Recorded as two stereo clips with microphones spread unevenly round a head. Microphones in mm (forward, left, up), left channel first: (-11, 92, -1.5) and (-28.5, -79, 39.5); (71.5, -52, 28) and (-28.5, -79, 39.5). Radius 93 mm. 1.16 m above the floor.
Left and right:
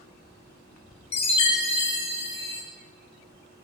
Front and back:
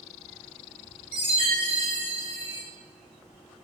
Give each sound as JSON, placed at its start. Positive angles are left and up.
{"t": 1.1, "sound": "a chime", "azimuth_deg": 140, "distance_m": 0.6}